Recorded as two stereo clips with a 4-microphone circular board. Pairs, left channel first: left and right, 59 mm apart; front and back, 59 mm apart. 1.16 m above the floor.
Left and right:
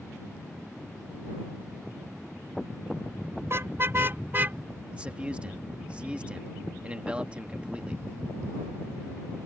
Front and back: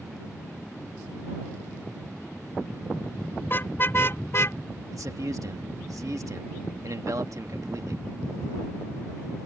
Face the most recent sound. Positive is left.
turn(degrees=-160)